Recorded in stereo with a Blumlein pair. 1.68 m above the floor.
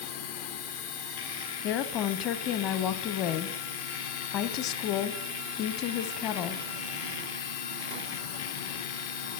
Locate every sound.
0.0 s a machine running: 55° left, 0.7 m
1.6 s a woman speaking: 35° left, 0.9 m